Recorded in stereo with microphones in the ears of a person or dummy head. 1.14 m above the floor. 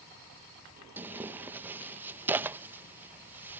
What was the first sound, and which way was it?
Tearing paper, 10° right (ahead or behind).